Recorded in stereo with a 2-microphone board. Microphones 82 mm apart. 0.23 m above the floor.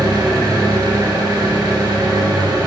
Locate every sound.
0.0 s an engine running: 60° right (ahead or behind), 3.5 m